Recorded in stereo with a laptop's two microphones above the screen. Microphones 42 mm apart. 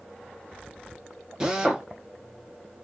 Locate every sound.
1.4 s a drill: 15° right (ahead or behind), 1.1 m